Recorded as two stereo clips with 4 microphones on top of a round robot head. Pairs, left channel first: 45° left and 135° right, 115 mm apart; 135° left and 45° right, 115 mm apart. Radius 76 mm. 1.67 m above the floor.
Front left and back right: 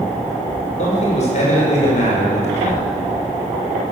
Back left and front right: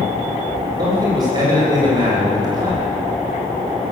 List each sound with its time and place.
0.8 s a man speaking: 15° left, 7.5 m